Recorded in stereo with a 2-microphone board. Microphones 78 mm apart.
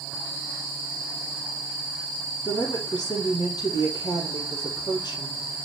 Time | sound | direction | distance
2.5 | a woman speaking | 60° left (ahead or behind) | 3 m